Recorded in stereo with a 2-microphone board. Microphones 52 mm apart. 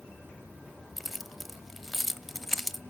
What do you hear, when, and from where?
1.0 s keys jangling: centre (ahead or behind), 0.7 m